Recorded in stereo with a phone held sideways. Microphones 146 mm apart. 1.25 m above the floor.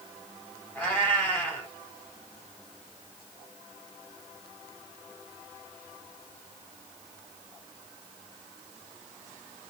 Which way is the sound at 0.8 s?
10° left (ahead or behind).